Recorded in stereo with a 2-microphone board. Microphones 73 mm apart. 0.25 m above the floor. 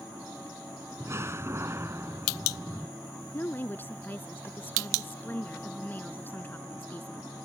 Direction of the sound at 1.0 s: 35° right (ahead or behind).